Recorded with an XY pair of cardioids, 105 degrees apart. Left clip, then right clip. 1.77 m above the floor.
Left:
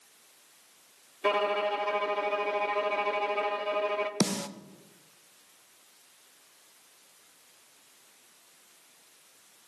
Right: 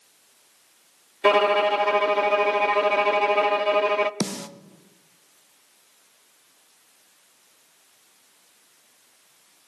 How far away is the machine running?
I don't hear a machine running.